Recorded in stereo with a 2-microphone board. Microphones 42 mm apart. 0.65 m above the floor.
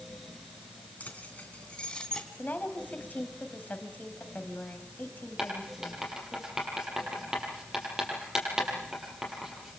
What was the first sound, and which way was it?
Keys jangling, 35° left (ahead or behind).